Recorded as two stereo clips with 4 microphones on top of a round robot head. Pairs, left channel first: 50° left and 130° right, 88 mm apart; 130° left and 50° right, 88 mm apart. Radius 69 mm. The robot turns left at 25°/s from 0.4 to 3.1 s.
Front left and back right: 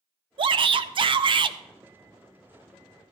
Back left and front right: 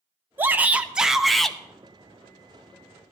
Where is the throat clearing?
I don't hear throat clearing.